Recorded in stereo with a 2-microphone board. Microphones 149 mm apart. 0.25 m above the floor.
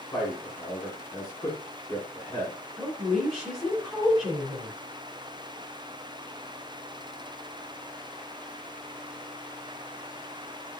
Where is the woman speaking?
5° left (ahead or behind), 2.5 m.